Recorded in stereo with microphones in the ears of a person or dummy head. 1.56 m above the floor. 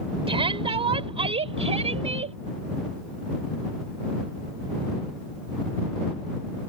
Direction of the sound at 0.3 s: 30° right (ahead or behind).